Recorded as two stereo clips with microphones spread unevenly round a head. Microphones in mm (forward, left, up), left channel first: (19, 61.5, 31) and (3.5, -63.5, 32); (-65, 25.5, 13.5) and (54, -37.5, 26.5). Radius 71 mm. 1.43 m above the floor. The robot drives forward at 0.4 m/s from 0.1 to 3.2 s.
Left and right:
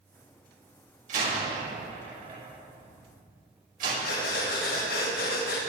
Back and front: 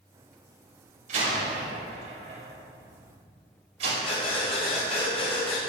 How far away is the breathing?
About 4.5 m.